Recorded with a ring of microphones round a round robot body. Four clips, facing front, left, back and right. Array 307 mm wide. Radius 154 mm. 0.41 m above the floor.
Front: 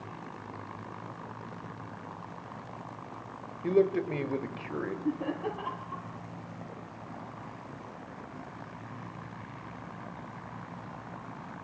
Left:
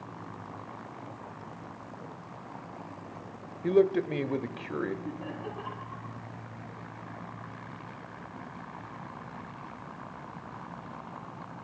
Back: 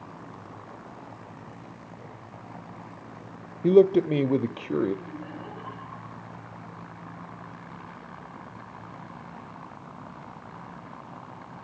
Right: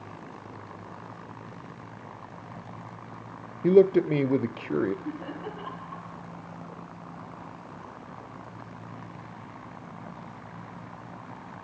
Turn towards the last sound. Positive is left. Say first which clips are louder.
# right 2 dB, front 7 dB
turn(degrees=-5)